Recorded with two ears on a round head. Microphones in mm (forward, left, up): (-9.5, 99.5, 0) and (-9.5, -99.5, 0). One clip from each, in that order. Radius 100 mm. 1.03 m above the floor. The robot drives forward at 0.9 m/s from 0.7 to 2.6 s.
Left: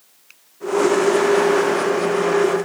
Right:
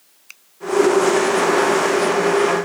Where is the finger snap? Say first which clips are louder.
Right 7 dB; 45° right (ahead or behind).